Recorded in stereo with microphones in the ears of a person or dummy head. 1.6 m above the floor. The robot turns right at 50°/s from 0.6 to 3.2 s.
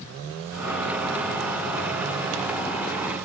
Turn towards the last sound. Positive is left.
No sound to turn to.